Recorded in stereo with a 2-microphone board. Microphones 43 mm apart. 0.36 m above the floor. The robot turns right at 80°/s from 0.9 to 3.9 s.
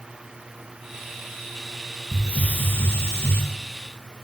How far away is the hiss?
About 8 m.